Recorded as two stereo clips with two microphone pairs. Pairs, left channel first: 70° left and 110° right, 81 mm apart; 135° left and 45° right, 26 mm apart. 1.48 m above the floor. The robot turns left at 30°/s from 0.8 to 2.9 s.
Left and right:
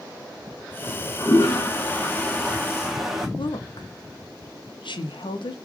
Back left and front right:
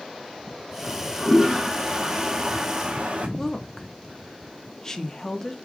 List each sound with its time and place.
0.8 s a toilet flushing: 35° left, 0.8 m; by 3.3 s 25° right, 0.8 m
3.4 s a woman speaking: 70° left, 0.6 m